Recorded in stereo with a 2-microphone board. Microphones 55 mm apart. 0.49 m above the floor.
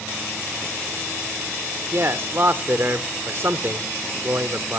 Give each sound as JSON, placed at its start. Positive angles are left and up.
{"t": 1.9, "sound": "a man speaking", "side_deg": -45, "distance_m": 1.3}